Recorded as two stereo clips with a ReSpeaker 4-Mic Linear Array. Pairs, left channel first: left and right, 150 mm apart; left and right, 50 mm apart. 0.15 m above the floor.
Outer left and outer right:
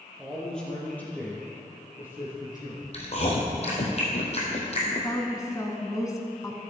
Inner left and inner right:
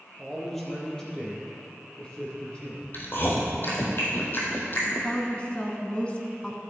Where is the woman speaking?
25° left (ahead or behind), 1.4 m.